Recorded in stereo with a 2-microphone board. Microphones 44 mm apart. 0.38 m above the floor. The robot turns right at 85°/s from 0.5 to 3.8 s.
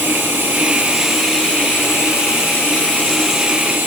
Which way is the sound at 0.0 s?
50° right.